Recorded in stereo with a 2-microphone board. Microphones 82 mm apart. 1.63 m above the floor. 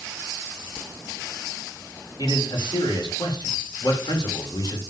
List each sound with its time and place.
2.2 s a man speaking: 65° left (ahead or behind), 5 m